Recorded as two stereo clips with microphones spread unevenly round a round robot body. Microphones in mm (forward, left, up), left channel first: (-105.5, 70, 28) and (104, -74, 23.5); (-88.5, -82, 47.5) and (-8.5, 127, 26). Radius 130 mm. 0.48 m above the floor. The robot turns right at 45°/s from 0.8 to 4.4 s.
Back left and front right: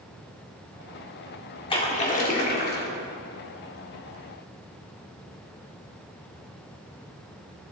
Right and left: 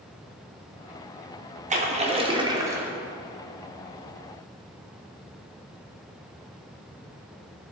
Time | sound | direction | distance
1.7 | a splash | 85° left | 1.6 m